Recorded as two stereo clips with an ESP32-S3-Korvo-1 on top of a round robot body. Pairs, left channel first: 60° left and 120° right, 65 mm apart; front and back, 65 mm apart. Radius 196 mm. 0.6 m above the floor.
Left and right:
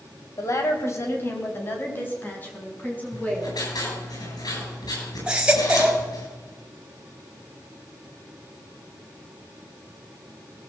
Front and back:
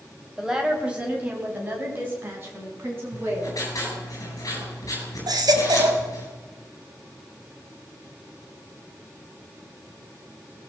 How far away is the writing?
About 10 m.